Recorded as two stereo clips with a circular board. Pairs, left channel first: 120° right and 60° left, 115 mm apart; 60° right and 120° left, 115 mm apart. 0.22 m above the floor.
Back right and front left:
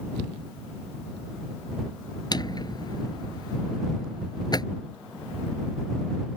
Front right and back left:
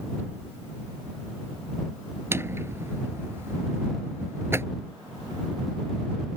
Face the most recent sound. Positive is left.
turn(degrees=-170)